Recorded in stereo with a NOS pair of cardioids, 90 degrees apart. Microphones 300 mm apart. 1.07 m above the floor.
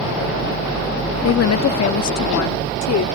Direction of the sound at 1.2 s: 50° left.